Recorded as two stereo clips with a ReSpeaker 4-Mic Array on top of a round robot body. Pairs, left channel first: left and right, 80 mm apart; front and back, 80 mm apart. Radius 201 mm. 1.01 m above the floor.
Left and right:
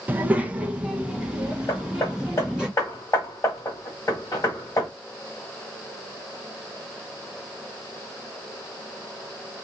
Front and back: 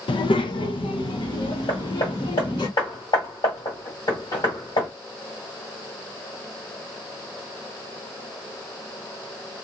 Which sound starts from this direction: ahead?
A child speaking, at 0.1 s.